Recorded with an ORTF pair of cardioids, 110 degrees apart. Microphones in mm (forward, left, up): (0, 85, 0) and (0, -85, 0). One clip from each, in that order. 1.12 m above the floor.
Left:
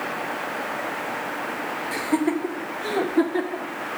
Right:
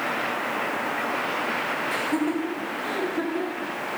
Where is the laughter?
20° left, 1.2 m; by 3.7 s 60° left, 1.8 m.